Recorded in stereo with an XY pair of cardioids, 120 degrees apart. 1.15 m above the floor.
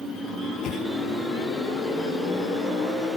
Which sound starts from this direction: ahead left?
A whoosh, at 0.6 s.